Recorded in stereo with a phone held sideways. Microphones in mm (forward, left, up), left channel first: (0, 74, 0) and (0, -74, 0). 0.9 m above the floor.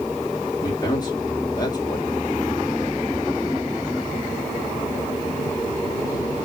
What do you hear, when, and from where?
0.6 s a man speaking: 30° left (ahead or behind), 2 m